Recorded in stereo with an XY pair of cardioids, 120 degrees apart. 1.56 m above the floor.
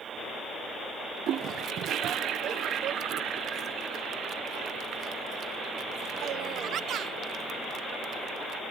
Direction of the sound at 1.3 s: 65° right.